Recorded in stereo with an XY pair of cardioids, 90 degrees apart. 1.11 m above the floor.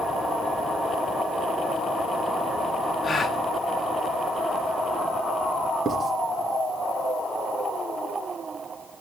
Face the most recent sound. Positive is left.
turn(degrees=-35)